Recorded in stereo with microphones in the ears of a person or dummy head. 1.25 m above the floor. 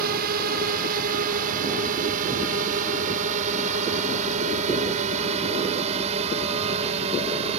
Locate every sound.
0.0 s a drone: 50° right (ahead or behind); by 7.6 s 30° right (ahead or behind)